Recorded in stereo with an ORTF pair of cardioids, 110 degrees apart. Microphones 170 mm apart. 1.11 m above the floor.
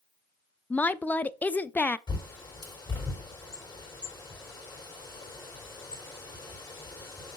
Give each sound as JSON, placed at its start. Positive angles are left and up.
{"t": 0.7, "sound": "a woman speaking", "azimuth_deg": 10, "distance_m": 0.5}
{"t": 2.1, "sound": "a bird", "azimuth_deg": 25, "distance_m": 3.5}